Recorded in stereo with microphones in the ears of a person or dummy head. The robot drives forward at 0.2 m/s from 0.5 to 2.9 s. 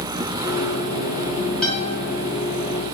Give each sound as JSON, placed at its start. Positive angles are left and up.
{"t": 1.6, "sound": "a guitar", "side_deg": 5, "distance_m": 0.9}